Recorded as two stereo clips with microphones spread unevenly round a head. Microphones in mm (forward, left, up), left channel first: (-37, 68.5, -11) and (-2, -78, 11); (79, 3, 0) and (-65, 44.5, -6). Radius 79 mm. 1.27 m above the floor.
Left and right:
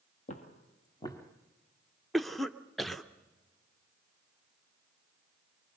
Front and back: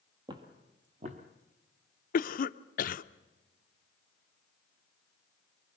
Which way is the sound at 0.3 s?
115° left.